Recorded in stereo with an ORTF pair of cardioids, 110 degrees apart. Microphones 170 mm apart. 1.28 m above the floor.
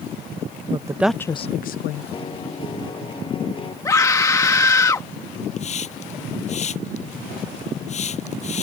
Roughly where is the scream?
Ahead.